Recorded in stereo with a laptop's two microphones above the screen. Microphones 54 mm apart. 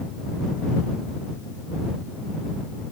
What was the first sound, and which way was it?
Only background noise.